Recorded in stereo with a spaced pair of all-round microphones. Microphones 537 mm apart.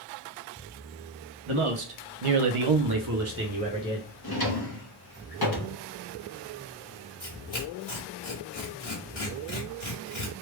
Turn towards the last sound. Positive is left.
turn(degrees=55)  # may be behind; listen again after turning